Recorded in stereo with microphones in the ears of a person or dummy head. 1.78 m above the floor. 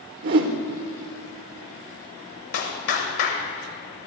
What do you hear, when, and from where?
0.2 s a whoosh: 45° right (ahead or behind), 1.1 m
2.5 s a clap: 60° left (ahead or behind), 1.7 m